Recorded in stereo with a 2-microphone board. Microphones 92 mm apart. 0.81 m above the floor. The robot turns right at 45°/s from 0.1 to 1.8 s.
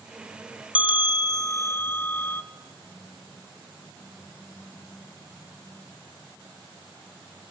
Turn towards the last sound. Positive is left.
turn(degrees=160)